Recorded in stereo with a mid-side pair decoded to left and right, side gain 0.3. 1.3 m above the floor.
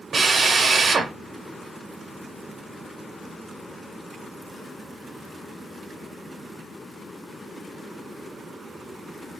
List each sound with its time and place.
0.1 s a drill: 65° right, 1.1 m